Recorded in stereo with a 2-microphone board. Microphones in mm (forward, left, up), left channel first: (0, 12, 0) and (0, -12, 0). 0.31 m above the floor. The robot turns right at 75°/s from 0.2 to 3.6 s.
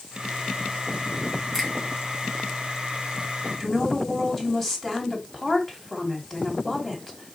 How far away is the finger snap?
About 3 m.